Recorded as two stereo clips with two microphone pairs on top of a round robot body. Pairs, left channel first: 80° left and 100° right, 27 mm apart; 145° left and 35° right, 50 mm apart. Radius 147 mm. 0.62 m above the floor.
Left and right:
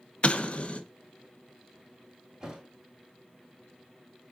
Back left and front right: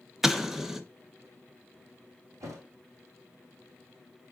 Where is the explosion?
40° left, 0.8 m.